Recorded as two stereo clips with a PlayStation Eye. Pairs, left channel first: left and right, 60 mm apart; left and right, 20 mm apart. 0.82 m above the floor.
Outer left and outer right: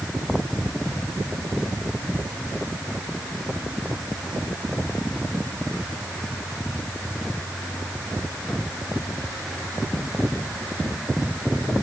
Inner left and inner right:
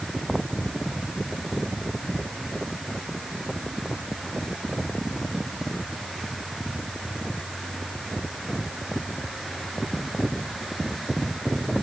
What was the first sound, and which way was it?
Only background noise.